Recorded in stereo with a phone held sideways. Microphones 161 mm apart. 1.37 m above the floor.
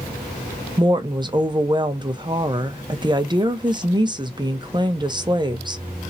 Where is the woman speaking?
25° right (ahead or behind), 0.9 m.